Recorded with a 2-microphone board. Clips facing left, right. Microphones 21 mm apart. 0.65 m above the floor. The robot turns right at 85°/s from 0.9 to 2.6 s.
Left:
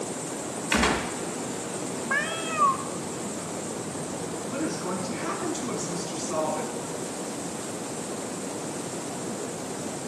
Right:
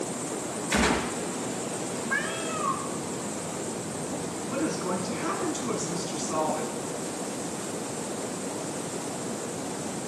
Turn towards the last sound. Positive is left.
turn(degrees=5)  # may be behind; listen again after turning